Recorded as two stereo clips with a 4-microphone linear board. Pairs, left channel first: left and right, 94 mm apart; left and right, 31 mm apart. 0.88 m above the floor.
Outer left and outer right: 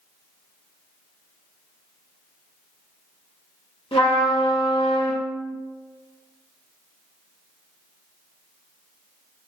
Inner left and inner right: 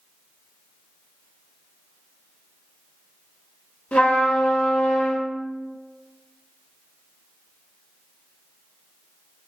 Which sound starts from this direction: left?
A trumpet, at 3.9 s.